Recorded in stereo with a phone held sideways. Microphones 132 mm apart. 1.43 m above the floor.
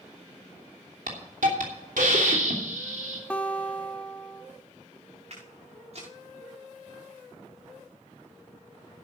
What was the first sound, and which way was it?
A hiss, 80° right.